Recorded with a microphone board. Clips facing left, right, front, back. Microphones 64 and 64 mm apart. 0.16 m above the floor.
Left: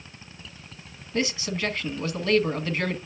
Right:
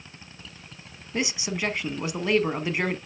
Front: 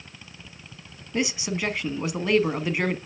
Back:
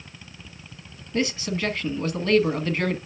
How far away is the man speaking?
About 1.0 m.